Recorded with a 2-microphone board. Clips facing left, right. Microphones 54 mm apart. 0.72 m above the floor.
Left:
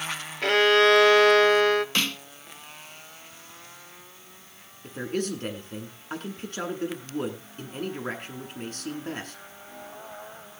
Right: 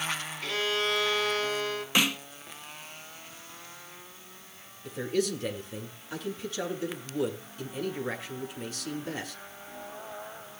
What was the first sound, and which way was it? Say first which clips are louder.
A violin: left 12 dB; 65° left (ahead or behind).